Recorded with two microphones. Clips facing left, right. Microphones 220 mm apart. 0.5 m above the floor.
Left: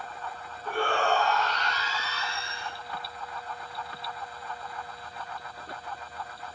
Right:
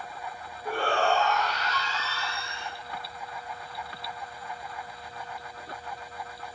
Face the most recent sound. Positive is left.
turn(degrees=40)  # may be behind; listen again after turning